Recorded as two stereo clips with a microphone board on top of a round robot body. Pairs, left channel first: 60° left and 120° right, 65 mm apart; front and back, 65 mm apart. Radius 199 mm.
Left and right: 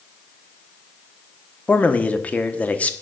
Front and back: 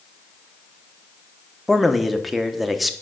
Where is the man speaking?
90° left, 1.1 m.